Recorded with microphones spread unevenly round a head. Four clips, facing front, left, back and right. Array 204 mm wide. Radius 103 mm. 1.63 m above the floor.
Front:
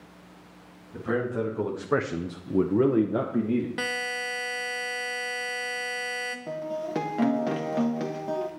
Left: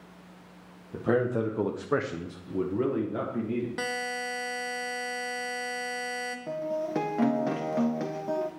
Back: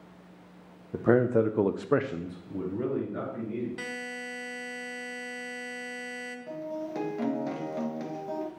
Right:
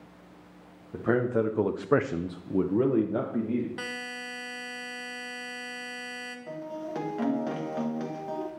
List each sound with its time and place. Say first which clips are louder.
0.9 s a man speaking: right 1 dB, back 5 dB; straight behind, 1.0 m; by 3.7 s 20° right, 1.5 m
3.8 s a buzzer: left 5 dB, front 6 dB; 40° left, 0.8 m
6.5 s a guitar: left 5 dB, front 3 dB; 45° left, 1.0 m